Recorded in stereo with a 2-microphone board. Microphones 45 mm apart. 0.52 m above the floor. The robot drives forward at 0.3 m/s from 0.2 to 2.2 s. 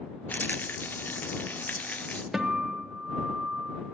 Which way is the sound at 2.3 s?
10° right (ahead or behind).